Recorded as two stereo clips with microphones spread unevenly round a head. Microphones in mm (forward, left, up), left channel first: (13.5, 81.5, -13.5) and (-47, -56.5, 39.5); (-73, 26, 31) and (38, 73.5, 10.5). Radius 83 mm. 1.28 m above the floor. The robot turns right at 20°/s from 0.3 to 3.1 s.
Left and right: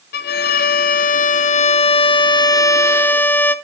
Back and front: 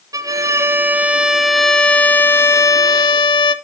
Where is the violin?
90° left, 0.6 m; by 3.5 s 145° left, 0.6 m.